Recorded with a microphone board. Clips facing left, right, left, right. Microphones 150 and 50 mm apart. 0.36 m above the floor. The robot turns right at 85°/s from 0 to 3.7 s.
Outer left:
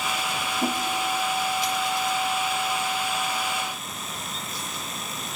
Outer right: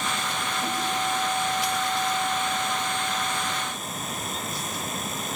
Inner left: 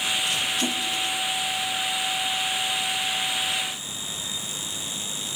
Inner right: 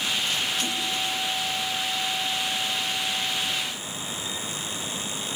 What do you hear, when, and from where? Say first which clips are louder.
0.6 s a whoosh: outer left 5 dB, inner left 2 dB; 40° left (ahead or behind), 1.6 m; by 0.8 s 25° left (ahead or behind), 1.6 m